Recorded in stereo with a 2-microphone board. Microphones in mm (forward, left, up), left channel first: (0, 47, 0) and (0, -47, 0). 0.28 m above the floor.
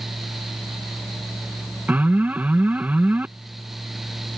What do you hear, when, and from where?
1.9 s an alarm: 15° right (ahead or behind)